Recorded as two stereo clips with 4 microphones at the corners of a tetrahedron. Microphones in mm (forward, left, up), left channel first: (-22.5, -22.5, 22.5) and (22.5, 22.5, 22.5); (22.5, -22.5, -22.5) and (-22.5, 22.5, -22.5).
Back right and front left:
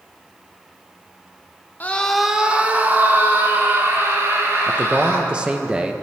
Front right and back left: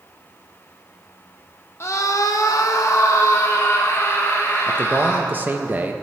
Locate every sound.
1.8 s a scream: 80° right, 0.6 m; by 5.3 s 5° left, 3.5 m
4.7 s a man speaking: 105° left, 0.6 m